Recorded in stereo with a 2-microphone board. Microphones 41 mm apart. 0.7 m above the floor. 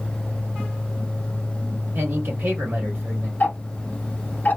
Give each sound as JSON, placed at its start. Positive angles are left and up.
{"t": 1.9, "sound": "a man speaking", "side_deg": -60, "distance_m": 2.0}
{"t": 3.4, "sound": "ticking", "side_deg": 40, "distance_m": 0.9}